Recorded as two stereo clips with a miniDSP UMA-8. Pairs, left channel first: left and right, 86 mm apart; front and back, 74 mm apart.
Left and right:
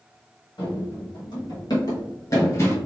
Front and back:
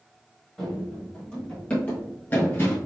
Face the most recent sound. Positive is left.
turn(degrees=45)